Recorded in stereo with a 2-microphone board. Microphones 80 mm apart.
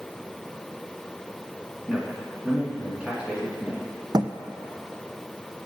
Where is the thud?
60° right (ahead or behind), 0.6 m.